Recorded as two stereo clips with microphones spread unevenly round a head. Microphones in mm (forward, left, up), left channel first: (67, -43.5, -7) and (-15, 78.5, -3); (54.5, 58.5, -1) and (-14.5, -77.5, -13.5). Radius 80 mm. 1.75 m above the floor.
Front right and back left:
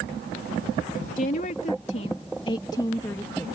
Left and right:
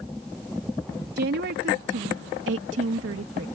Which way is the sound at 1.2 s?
100° right.